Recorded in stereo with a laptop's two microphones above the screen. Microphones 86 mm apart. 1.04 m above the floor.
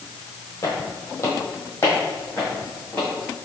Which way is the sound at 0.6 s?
35° left (ahead or behind).